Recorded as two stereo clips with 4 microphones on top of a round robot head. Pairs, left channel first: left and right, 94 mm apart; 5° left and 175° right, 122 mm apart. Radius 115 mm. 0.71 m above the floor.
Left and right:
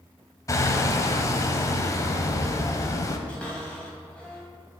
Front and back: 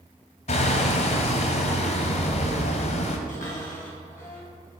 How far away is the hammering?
About 1.1 m.